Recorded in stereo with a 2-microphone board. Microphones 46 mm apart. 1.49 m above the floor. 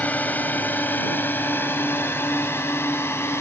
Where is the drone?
35° left (ahead or behind); by 3.4 s 65° left (ahead or behind).